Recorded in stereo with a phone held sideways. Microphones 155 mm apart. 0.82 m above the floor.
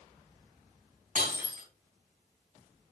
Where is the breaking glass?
60° right (ahead or behind), 3 m.